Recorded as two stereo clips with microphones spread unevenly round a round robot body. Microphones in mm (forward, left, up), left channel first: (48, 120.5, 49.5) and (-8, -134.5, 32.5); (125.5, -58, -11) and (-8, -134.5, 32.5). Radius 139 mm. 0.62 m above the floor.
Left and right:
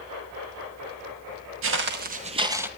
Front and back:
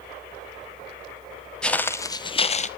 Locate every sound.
1.6 s footsteps: 65° right, 1.1 m; by 2.7 s 15° right, 1.0 m